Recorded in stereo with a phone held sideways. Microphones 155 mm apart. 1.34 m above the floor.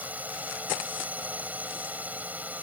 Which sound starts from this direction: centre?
A drone, at 0.0 s.